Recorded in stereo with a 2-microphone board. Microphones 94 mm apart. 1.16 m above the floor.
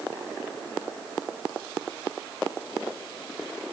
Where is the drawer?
No drawer in this recording.